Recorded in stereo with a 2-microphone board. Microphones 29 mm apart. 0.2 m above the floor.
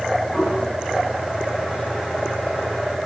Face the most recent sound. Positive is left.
turn(degrees=-25)  # may be behind; listen again after turning